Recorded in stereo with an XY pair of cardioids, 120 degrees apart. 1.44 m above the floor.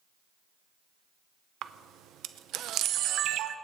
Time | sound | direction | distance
1.6 | a camera shutter | 70° right | 0.7 m